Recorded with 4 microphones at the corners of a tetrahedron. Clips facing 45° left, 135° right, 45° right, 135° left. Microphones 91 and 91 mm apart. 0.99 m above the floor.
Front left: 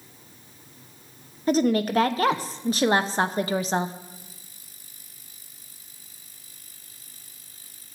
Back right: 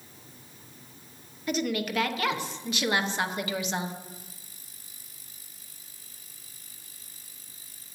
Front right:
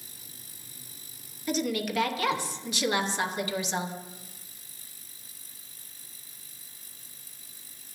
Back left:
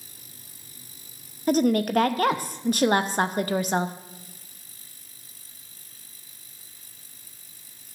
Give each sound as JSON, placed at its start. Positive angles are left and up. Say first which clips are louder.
{"t": 1.5, "sound": "a woman speaking", "louder": "front left 8 dB, back left 8 dB", "azimuth_deg": 95, "distance_m": 0.9}